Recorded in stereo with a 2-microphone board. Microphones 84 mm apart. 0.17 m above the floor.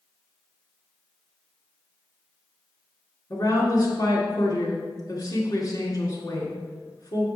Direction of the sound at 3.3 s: 50° left (ahead or behind).